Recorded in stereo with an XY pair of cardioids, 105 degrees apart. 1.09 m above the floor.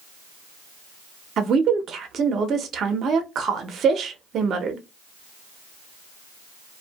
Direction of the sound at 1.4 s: 60° right.